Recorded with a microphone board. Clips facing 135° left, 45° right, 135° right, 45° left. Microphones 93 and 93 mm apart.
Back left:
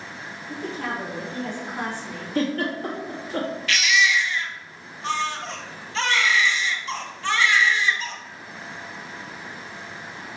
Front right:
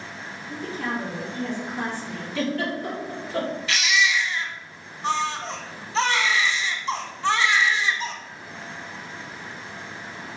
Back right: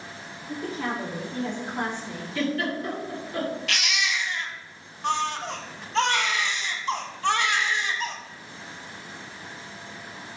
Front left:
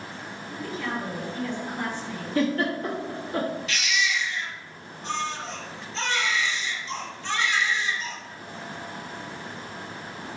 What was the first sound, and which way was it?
A woman speaking, 170° right.